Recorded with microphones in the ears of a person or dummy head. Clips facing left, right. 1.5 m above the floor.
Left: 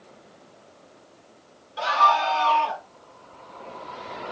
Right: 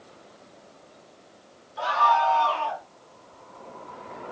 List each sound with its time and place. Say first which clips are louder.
1.8 s a scream: even; 35° left (ahead or behind), 3 m; by 2.8 s 30° left (ahead or behind), 2.0 m